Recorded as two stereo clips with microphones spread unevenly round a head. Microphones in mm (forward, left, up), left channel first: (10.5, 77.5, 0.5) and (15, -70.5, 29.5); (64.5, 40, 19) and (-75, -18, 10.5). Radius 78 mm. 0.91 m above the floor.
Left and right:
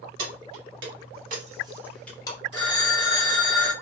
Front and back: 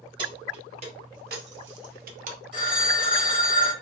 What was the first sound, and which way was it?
Keys jangling, 95° right.